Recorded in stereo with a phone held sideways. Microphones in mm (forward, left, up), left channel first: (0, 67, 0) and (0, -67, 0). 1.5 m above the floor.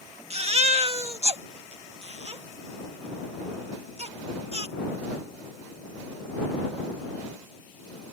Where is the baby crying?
50° right (ahead or behind).